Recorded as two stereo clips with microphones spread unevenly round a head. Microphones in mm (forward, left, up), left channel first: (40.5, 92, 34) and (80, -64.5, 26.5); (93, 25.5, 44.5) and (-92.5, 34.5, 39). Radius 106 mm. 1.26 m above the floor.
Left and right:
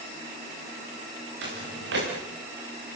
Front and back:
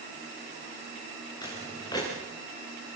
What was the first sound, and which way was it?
Footsteps, 75° right.